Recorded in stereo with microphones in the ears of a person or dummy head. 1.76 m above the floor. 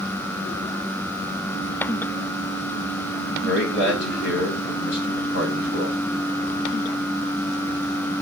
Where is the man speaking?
55° left (ahead or behind), 1.3 m.